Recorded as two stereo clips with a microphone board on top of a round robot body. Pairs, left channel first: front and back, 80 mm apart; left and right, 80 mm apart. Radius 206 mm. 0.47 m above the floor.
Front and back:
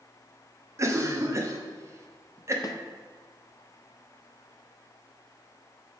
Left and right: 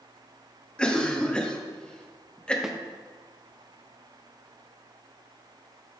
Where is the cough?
160° left, 1.2 m.